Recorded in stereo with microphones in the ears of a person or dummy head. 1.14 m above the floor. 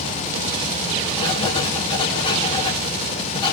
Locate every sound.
1.2 s writing: 30° left (ahead or behind), 0.8 m